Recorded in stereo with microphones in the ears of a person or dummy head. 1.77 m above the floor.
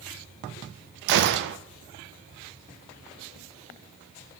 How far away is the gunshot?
About 0.5 m.